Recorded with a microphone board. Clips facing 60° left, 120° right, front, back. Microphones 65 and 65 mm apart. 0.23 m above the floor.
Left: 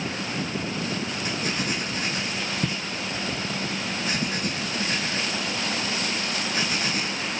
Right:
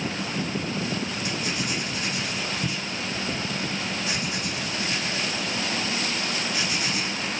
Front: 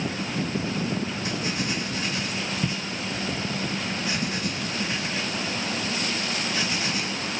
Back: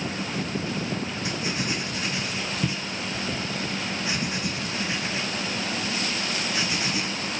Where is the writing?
110° left, 3 m.